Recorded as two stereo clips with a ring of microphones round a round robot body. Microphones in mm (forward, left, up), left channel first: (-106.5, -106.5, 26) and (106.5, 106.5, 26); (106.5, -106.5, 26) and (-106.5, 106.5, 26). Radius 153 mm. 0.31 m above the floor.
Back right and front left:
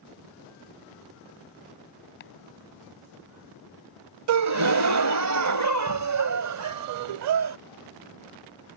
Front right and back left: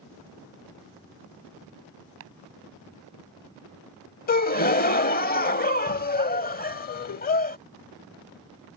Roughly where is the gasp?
Ahead.